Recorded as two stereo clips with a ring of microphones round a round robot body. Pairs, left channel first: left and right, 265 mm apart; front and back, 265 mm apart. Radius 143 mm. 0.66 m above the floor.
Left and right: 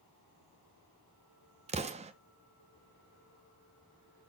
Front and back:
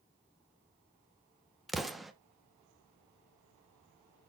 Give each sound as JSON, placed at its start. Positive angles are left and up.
{"t": 1.7, "sound": "an explosion", "azimuth_deg": -90, "distance_m": 0.8}